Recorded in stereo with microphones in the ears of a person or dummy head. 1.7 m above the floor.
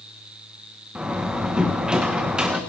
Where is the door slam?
5° right (ahead or behind), 1.3 m.